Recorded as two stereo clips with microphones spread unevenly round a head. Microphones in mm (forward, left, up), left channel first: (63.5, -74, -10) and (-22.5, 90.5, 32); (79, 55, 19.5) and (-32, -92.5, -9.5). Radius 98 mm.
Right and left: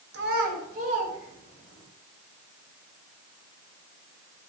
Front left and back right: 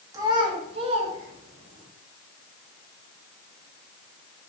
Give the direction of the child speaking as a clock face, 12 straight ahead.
7 o'clock.